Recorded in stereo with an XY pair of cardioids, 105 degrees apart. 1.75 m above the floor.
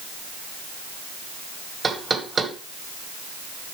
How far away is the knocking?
About 1.8 m.